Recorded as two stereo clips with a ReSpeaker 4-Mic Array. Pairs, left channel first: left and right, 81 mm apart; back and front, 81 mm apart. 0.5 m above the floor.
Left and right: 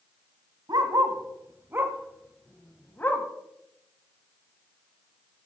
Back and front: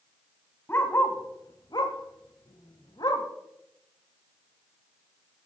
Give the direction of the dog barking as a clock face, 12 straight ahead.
4 o'clock.